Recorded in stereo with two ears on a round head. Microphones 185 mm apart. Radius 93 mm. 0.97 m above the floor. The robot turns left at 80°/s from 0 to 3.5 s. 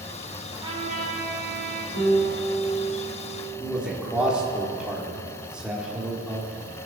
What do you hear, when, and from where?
0.5 s a trumpet: 10° right, 2 m; by 1.9 s 115° right, 2 m
1.9 s a piano: 110° left, 4.5 m; by 4.6 s 15° right, 4.5 m
3.6 s a man speaking: 5° right (ahead or behind), 2.5 m